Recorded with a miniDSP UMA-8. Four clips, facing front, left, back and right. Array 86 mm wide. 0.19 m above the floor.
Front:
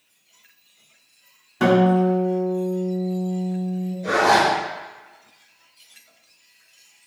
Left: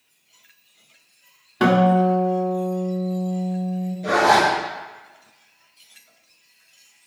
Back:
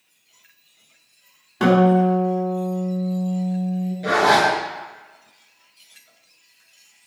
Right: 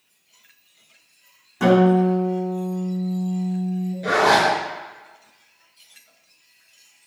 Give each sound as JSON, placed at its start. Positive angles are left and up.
{"t": 1.6, "sound": "a guitar", "azimuth_deg": 105, "distance_m": 1.8}
{"t": 4.0, "sound": "a zipper", "azimuth_deg": -145, "distance_m": 2.0}